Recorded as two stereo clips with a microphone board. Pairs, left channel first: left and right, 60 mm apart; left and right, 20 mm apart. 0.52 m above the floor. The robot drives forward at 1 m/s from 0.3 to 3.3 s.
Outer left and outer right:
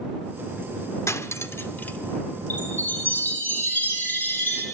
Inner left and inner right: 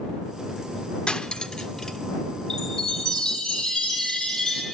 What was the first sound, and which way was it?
Cutlery clinking, 55° left (ahead or behind).